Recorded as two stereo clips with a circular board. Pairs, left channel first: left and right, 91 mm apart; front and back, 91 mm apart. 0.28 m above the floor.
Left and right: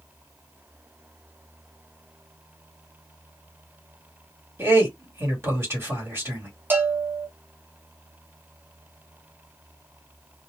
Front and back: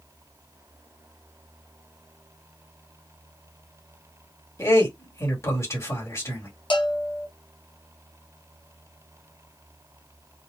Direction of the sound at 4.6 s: 40° right.